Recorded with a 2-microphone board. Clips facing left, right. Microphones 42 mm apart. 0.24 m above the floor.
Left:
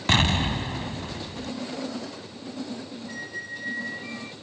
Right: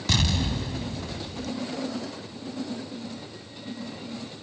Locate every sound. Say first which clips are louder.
0.1 s an explosion: left 4 dB; 40° left (ahead or behind)
3.1 s a squeak: left 6 dB; 80° left